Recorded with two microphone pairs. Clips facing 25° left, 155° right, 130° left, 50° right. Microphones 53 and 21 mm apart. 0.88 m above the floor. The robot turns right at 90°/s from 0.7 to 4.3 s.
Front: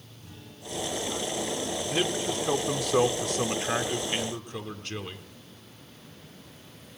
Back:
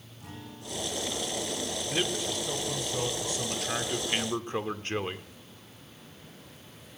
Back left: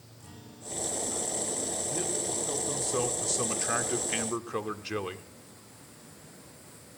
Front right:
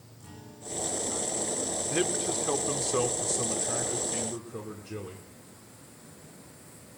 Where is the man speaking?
65° right, 2 m; by 5.3 s 150° left, 2 m.